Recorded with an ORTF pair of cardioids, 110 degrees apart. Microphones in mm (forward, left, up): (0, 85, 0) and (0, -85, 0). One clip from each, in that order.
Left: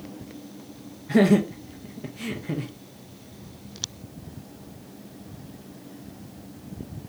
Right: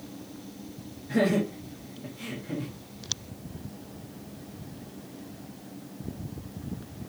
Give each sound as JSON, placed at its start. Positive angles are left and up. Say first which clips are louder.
{"t": 1.1, "sound": "laughter", "louder": "left 5 dB", "azimuth_deg": 35, "distance_m": 0.6}